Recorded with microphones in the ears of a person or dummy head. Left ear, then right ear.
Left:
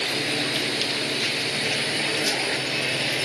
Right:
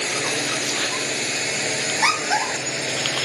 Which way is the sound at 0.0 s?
30° right (ahead or behind).